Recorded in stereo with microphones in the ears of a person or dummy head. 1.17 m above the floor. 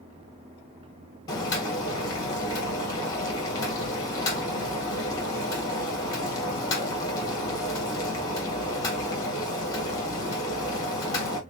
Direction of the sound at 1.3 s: 20° left (ahead or behind).